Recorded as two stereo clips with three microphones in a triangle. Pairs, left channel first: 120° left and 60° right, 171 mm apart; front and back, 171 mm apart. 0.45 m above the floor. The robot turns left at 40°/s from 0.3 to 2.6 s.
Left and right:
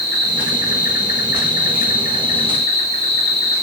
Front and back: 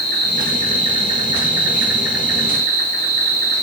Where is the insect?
155° left, 3 m; by 3.6 s 65° left, 3 m.